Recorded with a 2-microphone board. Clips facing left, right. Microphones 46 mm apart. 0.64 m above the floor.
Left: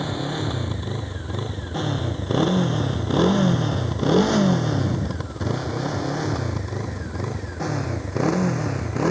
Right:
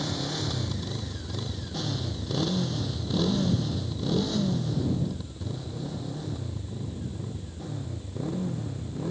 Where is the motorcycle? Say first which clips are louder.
Left 5 dB; 20° left (ahead or behind); by 9.1 s 90° left.